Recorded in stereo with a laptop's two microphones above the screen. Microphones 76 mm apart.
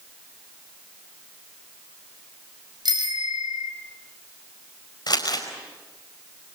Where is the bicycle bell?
70° right (ahead or behind), 4.5 m.